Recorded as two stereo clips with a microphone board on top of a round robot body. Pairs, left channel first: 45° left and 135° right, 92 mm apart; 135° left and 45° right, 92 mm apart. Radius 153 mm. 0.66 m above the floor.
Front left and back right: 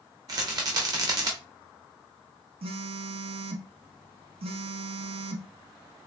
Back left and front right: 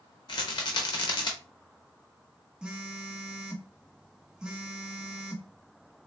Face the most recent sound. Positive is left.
turn(degrees=-125)